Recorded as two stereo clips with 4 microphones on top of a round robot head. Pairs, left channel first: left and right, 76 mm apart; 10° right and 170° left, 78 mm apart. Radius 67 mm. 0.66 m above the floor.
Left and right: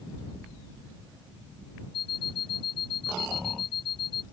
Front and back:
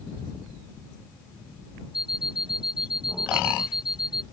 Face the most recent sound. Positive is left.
turn(degrees=90)